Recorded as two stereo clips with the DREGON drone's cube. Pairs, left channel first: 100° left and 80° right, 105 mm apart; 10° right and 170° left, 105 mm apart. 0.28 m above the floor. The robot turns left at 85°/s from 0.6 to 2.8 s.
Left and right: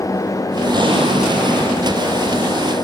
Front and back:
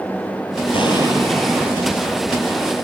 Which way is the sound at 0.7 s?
35° right.